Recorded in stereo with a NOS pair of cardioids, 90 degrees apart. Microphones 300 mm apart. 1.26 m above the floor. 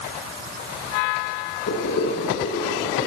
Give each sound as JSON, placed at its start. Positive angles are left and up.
{"t": 1.7, "sound": "boiling", "azimuth_deg": 50, "distance_m": 7.5}